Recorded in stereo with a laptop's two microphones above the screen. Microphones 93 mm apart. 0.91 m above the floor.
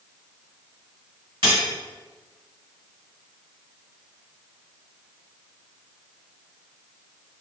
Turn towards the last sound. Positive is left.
turn(degrees=-55)  # may be behind; listen again after turning